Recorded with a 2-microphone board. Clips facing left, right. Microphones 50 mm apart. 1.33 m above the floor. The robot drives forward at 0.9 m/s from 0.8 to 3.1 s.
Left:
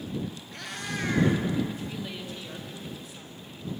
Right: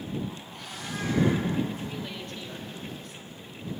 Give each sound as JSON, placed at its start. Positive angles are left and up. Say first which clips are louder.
{"t": 0.5, "sound": "a cat meowing", "louder": "left 2 dB", "side_deg": 65, "distance_m": 3.5}
{"t": 1.8, "sound": "a woman speaking", "louder": "even", "side_deg": 5, "distance_m": 2.5}